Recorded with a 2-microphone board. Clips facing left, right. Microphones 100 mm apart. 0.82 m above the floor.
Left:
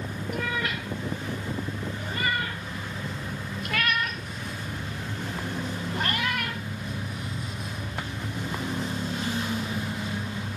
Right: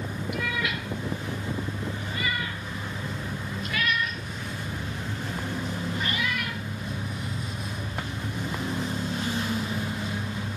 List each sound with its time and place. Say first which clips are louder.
0.3 s a cat meowing: left 1 dB; 40° left (ahead or behind), 3.5 m; by 6.6 s 60° left (ahead or behind), 1.8 m